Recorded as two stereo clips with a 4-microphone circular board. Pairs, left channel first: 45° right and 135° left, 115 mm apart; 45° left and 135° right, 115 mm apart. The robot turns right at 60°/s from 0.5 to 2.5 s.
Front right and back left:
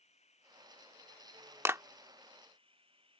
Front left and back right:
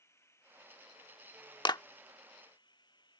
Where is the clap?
75° left; by 1.8 s 85° left.